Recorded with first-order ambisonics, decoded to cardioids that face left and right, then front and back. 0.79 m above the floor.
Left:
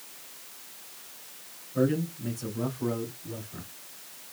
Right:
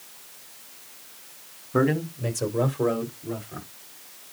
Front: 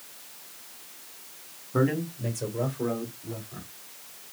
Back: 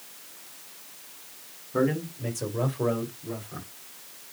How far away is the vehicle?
I don't hear a vehicle.